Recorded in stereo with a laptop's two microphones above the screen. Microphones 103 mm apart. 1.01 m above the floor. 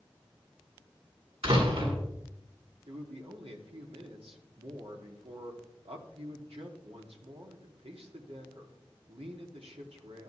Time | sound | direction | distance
1.4 | a door slam | 75° right (ahead or behind) | 8 m
2.9 | a man speaking | 80° right | 2.5 m